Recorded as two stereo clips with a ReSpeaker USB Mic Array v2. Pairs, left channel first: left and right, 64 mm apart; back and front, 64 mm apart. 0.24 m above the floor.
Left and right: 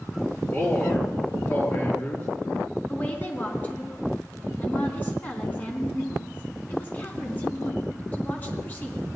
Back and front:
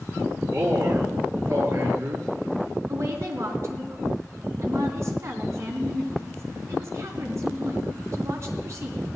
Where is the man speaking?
40° left, 3.5 m.